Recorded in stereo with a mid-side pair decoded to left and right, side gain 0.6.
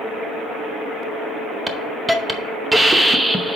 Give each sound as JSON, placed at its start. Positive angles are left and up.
{"t": 1.7, "sound": "a hiss", "azimuth_deg": -5, "distance_m": 0.8}